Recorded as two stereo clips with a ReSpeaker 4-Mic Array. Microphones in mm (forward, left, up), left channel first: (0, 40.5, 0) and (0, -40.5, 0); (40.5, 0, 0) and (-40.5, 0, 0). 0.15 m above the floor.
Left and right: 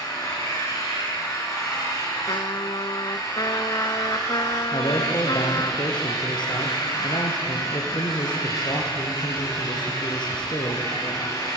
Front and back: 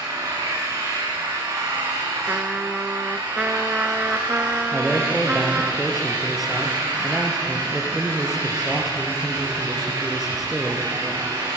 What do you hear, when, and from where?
0.0 s an engine running: 140° left, 7 m
2.3 s a trumpet: 105° left, 0.6 m
4.7 s a man speaking: 90° left, 4 m